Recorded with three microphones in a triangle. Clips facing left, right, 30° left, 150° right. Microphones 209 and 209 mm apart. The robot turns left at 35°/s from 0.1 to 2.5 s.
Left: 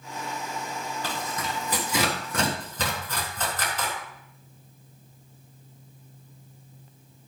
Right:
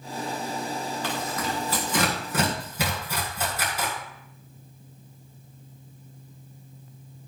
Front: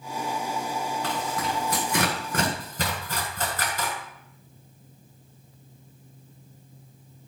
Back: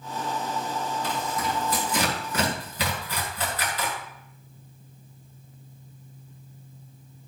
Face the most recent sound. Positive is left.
turn(degrees=-10)